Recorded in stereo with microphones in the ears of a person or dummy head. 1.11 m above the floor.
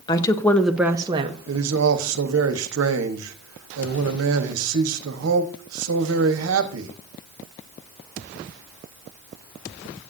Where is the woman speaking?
25° left (ahead or behind), 1.1 m; by 1.4 s 35° right (ahead or behind), 1.0 m.